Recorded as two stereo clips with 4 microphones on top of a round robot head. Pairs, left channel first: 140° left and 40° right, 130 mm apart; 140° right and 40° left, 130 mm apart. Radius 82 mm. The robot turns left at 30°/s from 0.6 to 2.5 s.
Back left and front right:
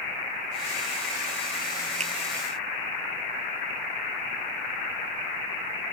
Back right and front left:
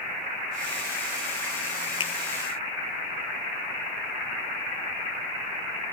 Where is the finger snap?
85° right; by 2.1 s 90° right.